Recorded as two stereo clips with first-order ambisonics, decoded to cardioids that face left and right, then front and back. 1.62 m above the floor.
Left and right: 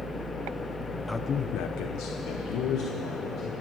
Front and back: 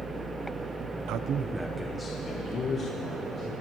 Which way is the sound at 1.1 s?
175° left.